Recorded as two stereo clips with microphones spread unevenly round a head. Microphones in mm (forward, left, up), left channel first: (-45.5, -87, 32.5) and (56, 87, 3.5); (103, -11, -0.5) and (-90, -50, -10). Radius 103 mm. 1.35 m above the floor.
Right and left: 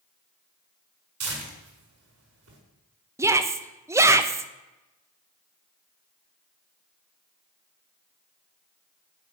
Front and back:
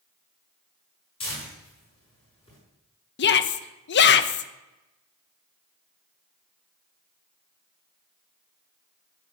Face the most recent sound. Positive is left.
turn(degrees=-20)